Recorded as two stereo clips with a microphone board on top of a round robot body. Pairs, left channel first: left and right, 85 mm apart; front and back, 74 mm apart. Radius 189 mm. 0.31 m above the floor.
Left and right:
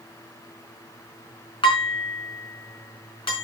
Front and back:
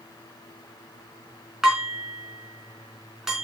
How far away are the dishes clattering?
About 4.5 m.